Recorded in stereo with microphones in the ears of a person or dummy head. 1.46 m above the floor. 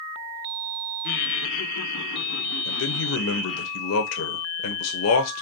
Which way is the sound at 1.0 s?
55° left (ahead or behind).